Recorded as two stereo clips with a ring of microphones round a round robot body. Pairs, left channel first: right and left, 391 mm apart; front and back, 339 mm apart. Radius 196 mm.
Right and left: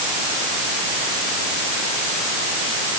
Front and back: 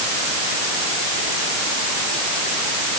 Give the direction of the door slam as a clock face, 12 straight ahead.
No door slam in this recording.